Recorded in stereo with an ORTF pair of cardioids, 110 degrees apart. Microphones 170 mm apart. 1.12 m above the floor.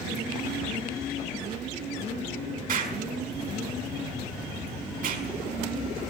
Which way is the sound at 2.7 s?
55° right.